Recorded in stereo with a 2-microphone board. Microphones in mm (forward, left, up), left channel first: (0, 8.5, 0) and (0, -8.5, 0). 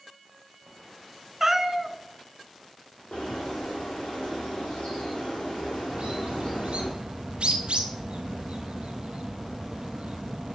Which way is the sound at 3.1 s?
75° left (ahead or behind).